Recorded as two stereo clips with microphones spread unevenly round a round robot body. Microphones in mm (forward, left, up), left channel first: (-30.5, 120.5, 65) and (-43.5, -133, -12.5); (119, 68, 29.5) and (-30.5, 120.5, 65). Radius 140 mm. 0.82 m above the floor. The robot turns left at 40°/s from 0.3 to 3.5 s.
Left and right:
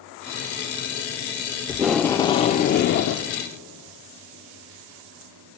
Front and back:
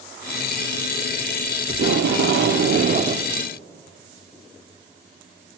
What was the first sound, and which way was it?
Tape being pulled, 175° right.